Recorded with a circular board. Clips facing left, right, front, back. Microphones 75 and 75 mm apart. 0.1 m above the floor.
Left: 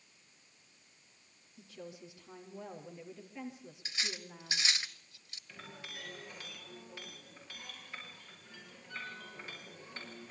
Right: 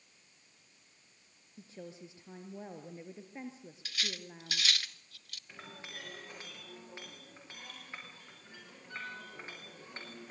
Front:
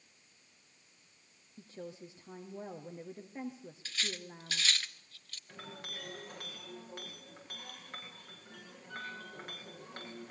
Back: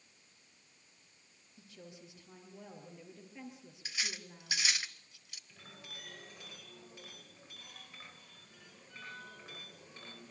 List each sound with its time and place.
1.6 s a woman speaking: 40° right, 2.5 m
3.9 s cutlery clinking: 120° left, 0.8 m
5.5 s a clink: 30° right, 9 m